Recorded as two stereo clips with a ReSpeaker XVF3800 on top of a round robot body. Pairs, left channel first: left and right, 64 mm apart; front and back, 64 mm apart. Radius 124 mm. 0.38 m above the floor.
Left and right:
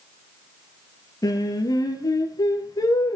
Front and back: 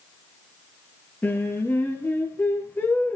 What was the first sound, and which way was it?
Singing, 65° left.